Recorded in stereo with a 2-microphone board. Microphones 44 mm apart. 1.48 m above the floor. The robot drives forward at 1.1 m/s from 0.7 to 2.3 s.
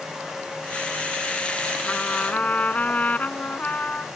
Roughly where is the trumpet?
Left.